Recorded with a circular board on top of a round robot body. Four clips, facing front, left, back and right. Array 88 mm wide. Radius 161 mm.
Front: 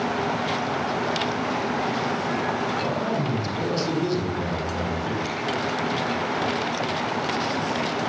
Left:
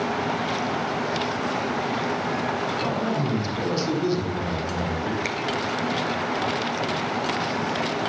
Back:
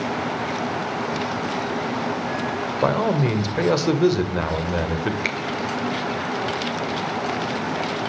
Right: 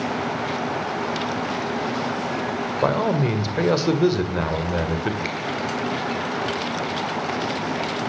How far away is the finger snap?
About 2.5 m.